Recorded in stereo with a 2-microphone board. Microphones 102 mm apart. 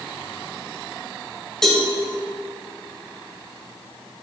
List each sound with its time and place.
1.6 s a cowbell: 5° left (ahead or behind), 1.9 m